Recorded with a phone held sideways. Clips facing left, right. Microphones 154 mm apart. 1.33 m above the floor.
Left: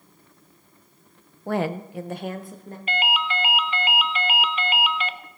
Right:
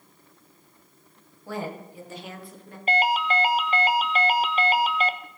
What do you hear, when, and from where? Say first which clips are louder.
1.5 s a woman speaking: left 8 dB; 55° left (ahead or behind), 0.5 m; by 2.8 s 35° left (ahead or behind), 1.5 m
2.9 s a ringtone: right 4 dB; 40° right (ahead or behind), 0.5 m